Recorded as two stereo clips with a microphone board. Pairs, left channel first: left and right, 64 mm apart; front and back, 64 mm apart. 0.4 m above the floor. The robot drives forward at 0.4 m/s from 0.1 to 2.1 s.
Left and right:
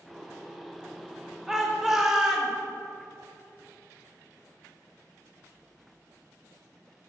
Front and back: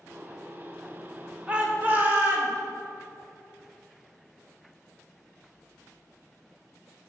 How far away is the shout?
About 0.7 m.